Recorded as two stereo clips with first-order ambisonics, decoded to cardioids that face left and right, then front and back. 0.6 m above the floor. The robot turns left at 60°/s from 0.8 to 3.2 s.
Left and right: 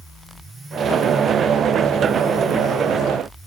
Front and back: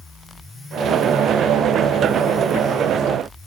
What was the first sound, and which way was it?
Only background noise.